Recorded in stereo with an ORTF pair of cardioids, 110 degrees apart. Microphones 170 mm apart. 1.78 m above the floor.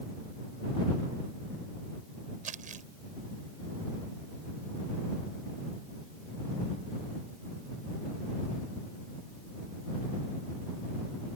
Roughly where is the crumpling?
Ahead right.